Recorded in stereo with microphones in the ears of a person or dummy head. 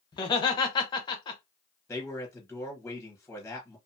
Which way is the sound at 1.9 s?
5° left (ahead or behind).